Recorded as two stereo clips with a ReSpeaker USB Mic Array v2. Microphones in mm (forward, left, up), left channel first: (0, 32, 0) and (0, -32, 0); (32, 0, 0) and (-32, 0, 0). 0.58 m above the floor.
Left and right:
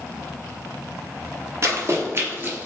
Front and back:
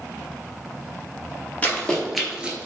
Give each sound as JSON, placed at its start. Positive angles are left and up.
{"t": 1.6, "sound": "running footsteps", "azimuth_deg": -60, "distance_m": 0.9}